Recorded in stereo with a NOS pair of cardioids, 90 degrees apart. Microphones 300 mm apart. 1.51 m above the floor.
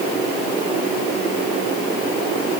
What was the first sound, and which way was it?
Only background noise.